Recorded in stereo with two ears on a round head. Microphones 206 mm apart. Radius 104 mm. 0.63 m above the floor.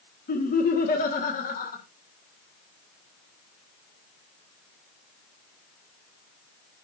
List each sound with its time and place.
0.3 s laughter: 40° left (ahead or behind), 1.3 m